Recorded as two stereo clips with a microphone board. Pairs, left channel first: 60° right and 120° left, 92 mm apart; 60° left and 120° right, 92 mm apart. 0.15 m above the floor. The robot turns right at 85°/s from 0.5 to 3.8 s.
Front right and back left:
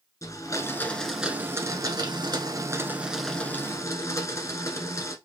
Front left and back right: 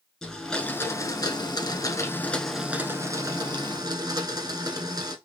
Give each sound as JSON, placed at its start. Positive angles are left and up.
{"t": 0.2, "sound": "a blender", "azimuth_deg": -25, "distance_m": 1.0}